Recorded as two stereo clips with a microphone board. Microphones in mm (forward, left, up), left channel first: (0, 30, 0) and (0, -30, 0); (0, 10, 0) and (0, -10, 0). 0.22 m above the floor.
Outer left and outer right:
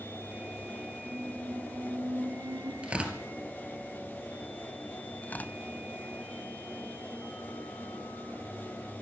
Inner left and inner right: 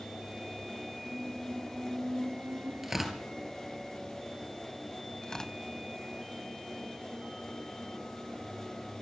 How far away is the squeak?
About 2.5 m.